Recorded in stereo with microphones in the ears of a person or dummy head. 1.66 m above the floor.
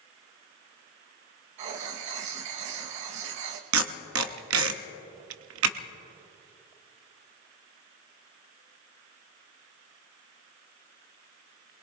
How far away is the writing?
About 1.2 m.